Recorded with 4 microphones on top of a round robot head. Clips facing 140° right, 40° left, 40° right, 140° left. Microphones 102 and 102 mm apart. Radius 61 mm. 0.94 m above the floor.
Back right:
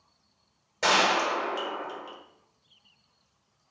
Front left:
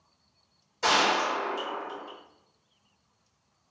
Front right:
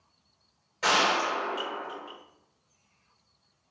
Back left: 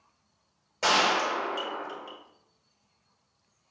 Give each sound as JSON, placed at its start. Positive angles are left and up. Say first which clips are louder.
{"t": 0.8, "sound": "a gunshot", "louder": "back right 1 dB, even", "azimuth_deg": -165, "distance_m": 1.4}